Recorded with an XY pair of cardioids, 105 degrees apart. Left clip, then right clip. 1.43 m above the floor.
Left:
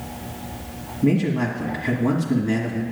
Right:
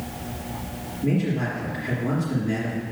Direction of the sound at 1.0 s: 55° left.